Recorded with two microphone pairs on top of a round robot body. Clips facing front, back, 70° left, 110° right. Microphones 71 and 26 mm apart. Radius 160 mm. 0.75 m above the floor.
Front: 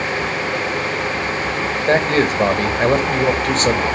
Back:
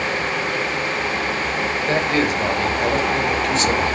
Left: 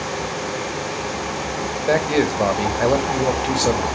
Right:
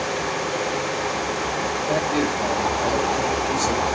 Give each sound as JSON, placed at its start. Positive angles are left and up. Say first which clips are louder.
{"t": 1.9, "sound": "a man speaking", "louder": "front 5 dB, left 6 dB", "azimuth_deg": 45, "distance_m": 1.2}